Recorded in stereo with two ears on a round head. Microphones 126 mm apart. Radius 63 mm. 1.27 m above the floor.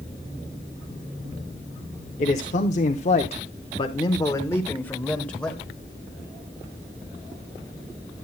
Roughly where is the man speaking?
Left.